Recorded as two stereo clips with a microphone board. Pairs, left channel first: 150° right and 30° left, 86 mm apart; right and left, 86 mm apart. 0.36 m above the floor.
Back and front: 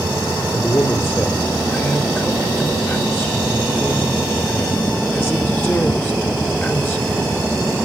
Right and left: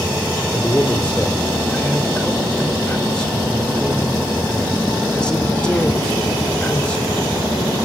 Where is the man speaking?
150° right, 0.9 m.